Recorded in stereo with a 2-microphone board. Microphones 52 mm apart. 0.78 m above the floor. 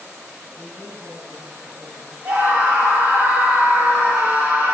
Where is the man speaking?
75° right (ahead or behind), 5.5 m.